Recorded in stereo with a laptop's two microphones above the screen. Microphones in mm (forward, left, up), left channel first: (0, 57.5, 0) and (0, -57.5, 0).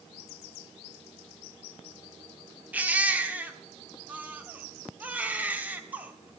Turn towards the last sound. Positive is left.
turn(degrees=-15)  # may be behind; listen again after turning